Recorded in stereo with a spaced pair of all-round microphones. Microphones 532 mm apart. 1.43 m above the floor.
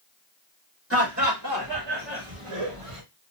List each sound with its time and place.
0.9 s laughter: 25° right (ahead or behind), 1.6 m; by 3.0 s 80° right, 1.5 m